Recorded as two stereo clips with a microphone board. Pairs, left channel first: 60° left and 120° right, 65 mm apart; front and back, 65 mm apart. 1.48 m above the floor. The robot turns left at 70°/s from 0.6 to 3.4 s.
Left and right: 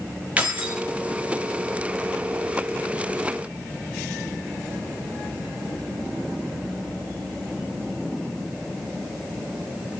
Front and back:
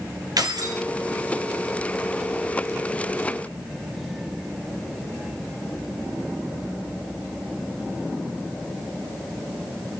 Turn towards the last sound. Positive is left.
turn(degrees=-25)